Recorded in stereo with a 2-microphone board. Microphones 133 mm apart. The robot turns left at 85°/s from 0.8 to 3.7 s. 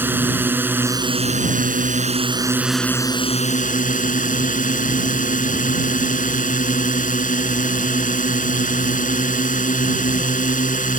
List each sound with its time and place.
0.0 s a drone: 15° right; by 11.0 s 100° left